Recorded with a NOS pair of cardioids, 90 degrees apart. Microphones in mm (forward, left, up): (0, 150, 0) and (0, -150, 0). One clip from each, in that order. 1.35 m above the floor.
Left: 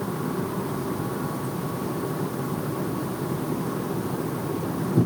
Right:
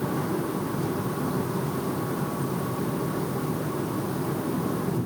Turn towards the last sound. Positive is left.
No sound to turn to.